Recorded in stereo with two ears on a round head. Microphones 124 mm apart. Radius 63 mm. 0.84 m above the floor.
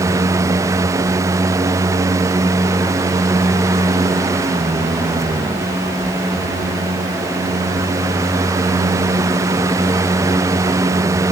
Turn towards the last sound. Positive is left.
No sound to turn to.